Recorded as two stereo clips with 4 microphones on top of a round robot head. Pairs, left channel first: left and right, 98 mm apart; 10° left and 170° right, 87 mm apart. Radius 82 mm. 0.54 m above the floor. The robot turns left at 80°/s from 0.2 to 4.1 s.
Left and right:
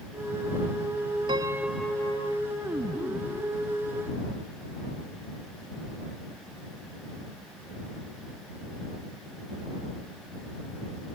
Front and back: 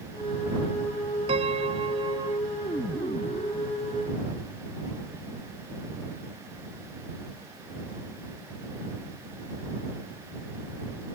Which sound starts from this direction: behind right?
A piano, at 1.3 s.